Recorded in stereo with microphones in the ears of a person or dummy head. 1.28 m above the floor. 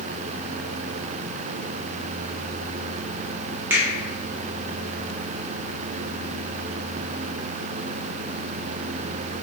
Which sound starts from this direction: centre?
A finger snap, at 3.7 s.